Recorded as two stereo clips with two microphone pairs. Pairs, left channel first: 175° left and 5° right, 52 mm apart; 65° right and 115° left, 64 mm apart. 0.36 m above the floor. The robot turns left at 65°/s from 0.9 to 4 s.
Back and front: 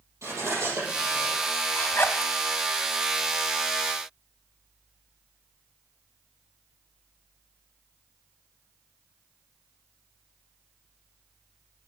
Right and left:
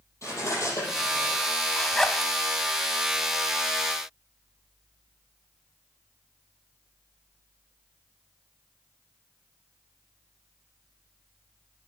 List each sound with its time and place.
0.2 s cutlery clinking: 30° right, 6.5 m; by 1.3 s 55° right, 6.5 m
1.7 s a zipper: 130° right, 0.8 m; by 2.3 s 165° right, 0.8 m